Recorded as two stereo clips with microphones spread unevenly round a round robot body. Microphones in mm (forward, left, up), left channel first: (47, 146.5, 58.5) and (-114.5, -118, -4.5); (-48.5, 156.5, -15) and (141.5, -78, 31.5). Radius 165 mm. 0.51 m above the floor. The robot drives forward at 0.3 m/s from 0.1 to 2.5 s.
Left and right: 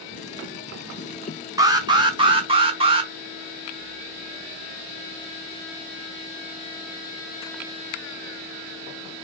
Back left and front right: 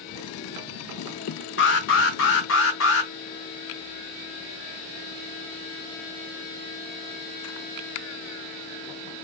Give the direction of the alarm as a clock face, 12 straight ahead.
6 o'clock.